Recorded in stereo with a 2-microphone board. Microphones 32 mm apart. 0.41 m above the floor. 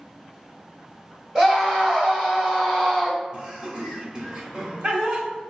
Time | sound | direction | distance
1.4 | a scream | 20° right (ahead or behind) | 1.9 m
3.3 | laughter | 35° right (ahead or behind) | 1.6 m